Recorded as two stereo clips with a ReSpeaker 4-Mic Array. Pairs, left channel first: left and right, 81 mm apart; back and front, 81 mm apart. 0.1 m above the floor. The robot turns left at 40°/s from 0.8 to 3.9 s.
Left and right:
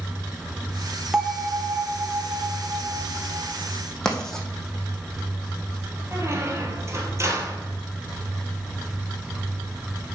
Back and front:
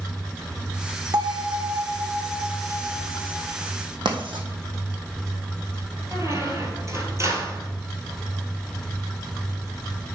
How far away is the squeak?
About 1.7 m.